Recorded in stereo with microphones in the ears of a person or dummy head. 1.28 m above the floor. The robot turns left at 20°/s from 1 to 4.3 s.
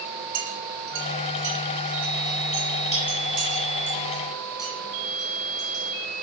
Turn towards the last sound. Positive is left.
turn(degrees=-5)  # may be behind; listen again after turning